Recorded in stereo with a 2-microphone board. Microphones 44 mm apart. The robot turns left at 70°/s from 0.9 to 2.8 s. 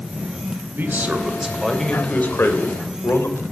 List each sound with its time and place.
0.7 s a man speaking: 130° right, 2.5 m; by 3.4 s 95° left, 2.5 m